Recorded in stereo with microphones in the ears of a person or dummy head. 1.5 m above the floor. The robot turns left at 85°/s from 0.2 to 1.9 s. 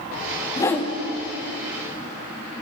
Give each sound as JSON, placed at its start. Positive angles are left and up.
{"t": 0.6, "sound": "a whoosh", "side_deg": 20, "distance_m": 0.7}